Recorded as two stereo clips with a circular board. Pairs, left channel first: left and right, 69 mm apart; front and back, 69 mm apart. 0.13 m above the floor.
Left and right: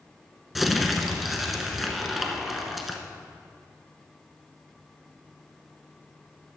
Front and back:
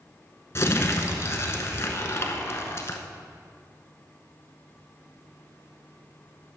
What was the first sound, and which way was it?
Crumpling, 5° right.